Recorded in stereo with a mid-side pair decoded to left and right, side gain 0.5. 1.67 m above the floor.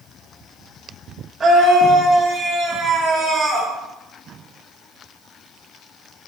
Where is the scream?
40° right, 5 m; by 3.7 s 35° right, 6 m.